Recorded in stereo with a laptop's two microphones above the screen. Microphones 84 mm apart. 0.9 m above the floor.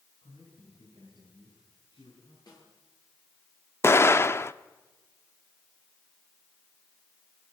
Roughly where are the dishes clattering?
No dishes clattering in this recording.